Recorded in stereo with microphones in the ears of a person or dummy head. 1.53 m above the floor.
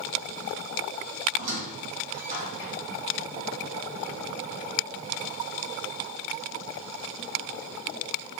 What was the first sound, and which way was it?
A squeak, 40° right (ahead or behind).